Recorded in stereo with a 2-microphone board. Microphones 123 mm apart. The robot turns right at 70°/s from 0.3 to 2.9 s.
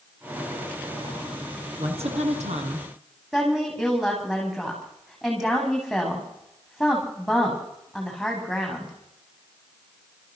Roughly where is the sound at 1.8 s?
Behind right.